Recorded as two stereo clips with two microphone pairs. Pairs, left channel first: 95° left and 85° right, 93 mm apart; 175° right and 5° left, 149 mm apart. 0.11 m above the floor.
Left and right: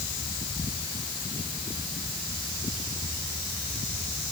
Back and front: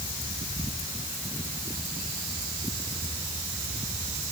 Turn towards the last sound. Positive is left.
No sound to turn to.